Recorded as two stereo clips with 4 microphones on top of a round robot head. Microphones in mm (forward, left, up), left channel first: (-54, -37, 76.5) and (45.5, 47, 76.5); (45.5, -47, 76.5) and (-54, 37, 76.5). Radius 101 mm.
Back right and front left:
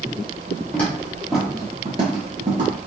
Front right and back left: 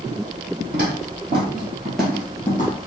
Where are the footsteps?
145° left, 1.3 m; by 2.8 s 10° left, 1.3 m.